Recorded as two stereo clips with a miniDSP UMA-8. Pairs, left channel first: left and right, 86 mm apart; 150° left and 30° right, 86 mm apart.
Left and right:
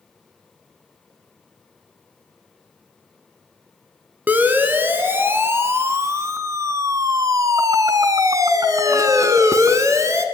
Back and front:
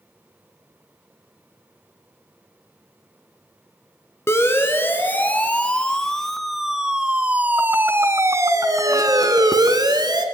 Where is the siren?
155° right, 2.5 m; by 10.2 s 45° right, 2.5 m.